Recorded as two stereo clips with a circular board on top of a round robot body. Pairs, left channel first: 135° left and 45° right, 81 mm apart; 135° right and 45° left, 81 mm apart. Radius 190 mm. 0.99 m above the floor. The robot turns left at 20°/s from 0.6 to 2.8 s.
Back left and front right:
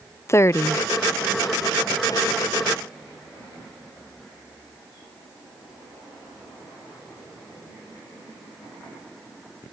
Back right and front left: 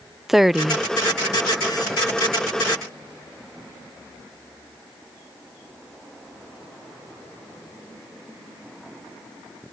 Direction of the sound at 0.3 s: 130° left.